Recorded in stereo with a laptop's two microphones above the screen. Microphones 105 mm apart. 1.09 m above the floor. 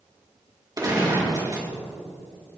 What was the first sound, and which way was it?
A gunshot, 35° right (ahead or behind).